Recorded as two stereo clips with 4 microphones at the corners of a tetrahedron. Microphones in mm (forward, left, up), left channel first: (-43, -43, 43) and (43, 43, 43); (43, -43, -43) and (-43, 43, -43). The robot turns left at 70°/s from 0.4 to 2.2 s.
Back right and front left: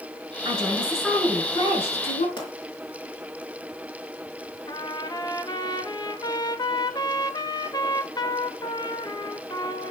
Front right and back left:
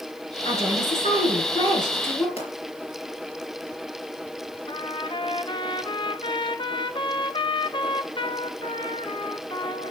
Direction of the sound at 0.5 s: 5° right.